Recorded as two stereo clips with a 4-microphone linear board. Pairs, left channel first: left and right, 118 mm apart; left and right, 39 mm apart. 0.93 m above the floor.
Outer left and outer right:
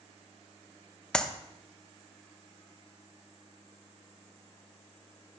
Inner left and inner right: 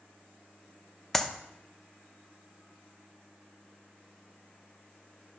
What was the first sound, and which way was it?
A clap, 5° left (ahead or behind).